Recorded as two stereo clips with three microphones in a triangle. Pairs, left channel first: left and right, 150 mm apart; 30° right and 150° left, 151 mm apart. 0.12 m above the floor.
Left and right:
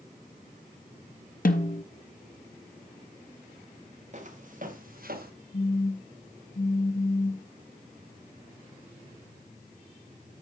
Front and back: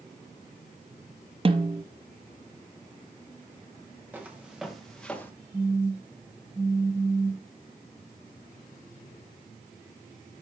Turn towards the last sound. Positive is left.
turn(degrees=80)